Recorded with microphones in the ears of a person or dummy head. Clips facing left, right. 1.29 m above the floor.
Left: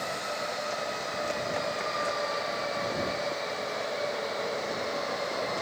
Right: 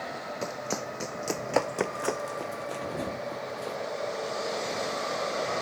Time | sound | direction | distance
0.4 | running footsteps | 60° right (ahead or behind) | ?